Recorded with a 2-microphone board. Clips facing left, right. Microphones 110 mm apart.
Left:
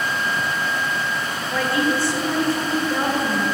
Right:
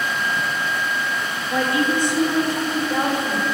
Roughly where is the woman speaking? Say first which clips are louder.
Right 1 dB; right.